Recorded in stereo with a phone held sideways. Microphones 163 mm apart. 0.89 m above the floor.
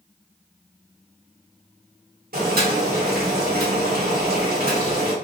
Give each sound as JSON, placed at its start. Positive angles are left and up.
{"t": 2.3, "sound": "boiling", "side_deg": -65, "distance_m": 1.2}